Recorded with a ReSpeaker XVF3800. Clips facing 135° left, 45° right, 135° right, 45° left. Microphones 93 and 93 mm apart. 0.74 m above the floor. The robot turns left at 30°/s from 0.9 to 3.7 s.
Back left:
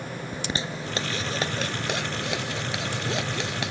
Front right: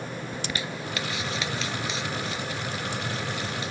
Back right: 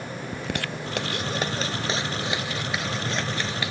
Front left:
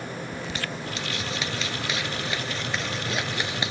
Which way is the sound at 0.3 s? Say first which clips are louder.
Back left 4 dB, back right 2 dB; 165° right.